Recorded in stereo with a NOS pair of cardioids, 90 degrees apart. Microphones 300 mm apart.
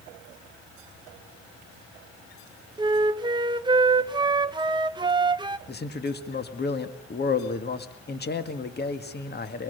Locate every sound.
2.8 s a flute: 15° right, 1.1 m
5.7 s a man speaking: 35° left, 2 m